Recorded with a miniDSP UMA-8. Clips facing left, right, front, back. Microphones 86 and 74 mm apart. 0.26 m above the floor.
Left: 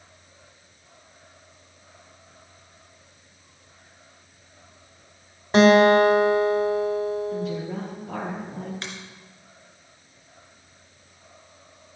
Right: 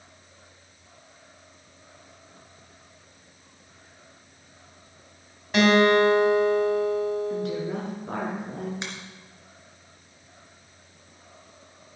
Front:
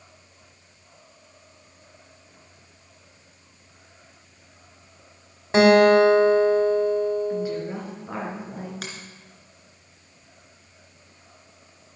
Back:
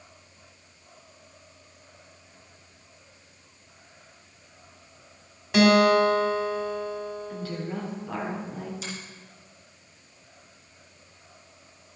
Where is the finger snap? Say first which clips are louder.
Right 1 dB, even; 20° right, 2.5 m.